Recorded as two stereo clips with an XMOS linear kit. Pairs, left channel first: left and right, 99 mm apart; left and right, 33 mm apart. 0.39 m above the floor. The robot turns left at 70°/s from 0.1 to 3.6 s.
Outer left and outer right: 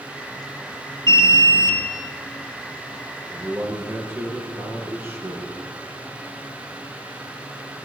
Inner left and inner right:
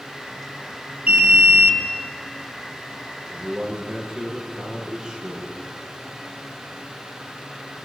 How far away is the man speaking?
About 8 m.